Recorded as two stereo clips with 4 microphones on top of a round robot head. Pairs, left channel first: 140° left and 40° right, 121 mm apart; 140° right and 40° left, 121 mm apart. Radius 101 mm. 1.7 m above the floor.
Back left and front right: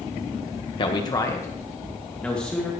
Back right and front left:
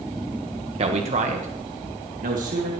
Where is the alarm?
No alarm in this recording.